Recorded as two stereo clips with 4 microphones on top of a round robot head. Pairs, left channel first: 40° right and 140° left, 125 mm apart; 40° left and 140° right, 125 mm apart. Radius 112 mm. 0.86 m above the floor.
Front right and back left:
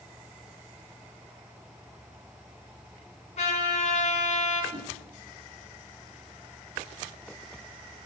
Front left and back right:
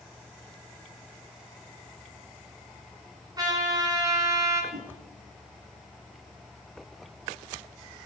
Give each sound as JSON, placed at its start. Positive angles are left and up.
{"t": 3.4, "sound": "a trumpet", "azimuth_deg": -80, "distance_m": 4.5}
{"t": 4.7, "sound": "a whoosh", "azimuth_deg": -160, "distance_m": 4.0}